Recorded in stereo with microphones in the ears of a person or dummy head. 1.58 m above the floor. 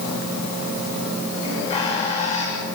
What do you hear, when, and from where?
1.4 s a bird: 25° left (ahead or behind), 8 m